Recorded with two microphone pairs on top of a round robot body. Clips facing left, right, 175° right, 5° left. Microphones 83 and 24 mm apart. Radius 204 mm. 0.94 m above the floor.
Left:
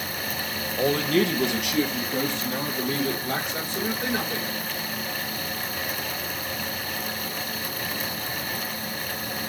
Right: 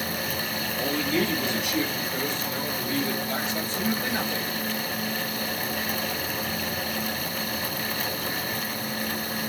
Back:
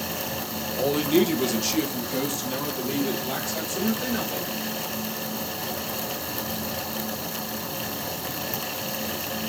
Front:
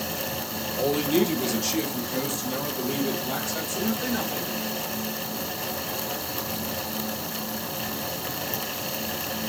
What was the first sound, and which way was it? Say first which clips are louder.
A man speaking: left 5 dB, back 2 dB; 110° left.